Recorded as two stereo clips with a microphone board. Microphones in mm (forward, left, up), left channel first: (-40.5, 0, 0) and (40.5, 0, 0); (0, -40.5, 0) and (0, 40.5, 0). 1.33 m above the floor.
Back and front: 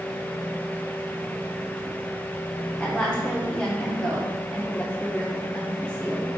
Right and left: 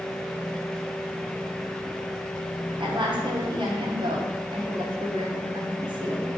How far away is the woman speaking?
About 1.1 m.